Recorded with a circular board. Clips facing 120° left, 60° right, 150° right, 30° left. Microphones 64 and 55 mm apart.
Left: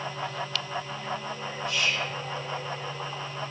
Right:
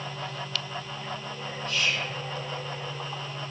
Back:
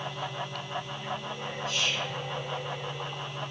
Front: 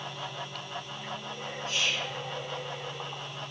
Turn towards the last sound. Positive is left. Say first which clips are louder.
# even, even
turn(degrees=45)